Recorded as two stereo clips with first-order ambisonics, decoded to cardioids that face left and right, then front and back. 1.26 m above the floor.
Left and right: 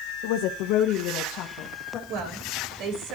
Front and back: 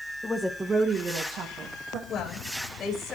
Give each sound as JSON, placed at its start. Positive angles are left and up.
{"t": 0.2, "sound": "a woman speaking", "azimuth_deg": 80, "distance_m": 1.1}
{"t": 2.1, "sound": "a woman speaking", "azimuth_deg": -60, "distance_m": 5.0}